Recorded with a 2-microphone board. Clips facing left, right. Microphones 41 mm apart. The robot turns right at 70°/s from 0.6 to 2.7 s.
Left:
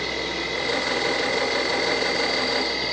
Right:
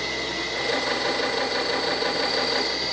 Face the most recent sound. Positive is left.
turn(degrees=160)